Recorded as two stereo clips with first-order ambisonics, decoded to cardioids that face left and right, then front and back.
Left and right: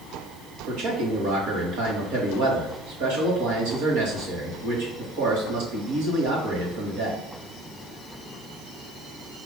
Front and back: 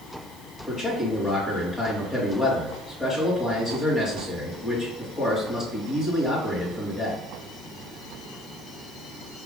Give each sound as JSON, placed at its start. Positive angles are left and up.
{"t": 0.7, "sound": "a man speaking", "azimuth_deg": -75, "distance_m": 2.0}